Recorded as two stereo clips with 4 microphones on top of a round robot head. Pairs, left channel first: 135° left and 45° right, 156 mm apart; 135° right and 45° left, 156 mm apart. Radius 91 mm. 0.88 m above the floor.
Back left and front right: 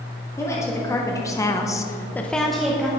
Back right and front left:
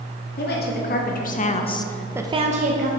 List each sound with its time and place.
0.4 s a woman speaking: 150° right, 2 m; by 2.9 s 40° left, 1.2 m